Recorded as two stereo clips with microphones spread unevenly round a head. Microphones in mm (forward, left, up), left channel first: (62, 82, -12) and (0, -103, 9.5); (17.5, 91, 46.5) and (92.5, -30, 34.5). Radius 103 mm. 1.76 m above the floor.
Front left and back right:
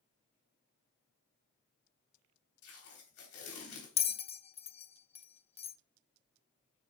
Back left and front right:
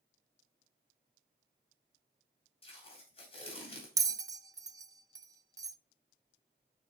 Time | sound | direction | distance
2.6 | tape being pulled | 75° left | 3.5 m
4.0 | a bell | 10° left | 0.5 m